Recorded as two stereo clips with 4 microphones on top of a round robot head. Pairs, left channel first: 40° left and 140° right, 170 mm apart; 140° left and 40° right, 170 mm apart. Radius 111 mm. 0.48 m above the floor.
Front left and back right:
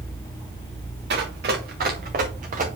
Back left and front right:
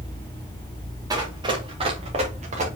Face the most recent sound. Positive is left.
turn(degrees=-90)